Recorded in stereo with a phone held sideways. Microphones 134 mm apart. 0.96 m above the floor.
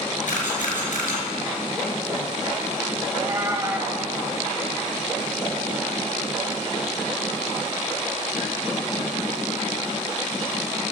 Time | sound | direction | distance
0.3 | a camera shutter | 75° left (ahead or behind) | 7 m
3.1 | a cat meowing | 25° right (ahead or behind) | 1.9 m